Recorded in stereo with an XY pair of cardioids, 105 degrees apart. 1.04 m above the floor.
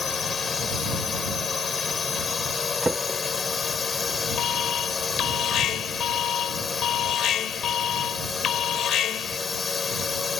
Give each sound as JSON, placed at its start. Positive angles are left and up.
{"t": 0.0, "sound": "a drone", "azimuth_deg": 35}
{"t": 2.8, "sound": "a drawer", "azimuth_deg": -15}
{"t": 4.4, "sound": "an alarm", "azimuth_deg": 65}